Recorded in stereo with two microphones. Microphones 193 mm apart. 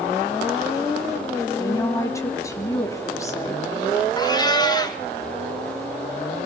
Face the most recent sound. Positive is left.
turn(degrees=20)  # may be behind; listen again after turning